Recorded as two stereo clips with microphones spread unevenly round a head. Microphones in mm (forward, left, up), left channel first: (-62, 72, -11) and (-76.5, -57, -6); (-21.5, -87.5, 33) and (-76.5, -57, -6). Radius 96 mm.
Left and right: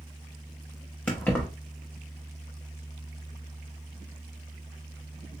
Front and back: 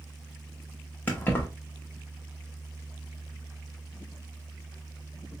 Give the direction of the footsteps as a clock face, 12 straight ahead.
No footsteps in this recording.